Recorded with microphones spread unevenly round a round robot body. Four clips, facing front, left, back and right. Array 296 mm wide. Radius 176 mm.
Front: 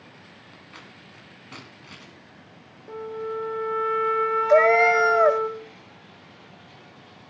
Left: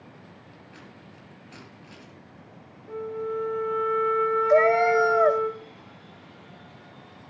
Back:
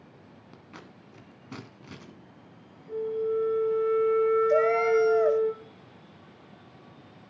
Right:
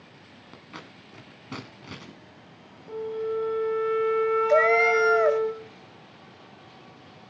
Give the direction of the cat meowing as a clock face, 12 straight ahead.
12 o'clock.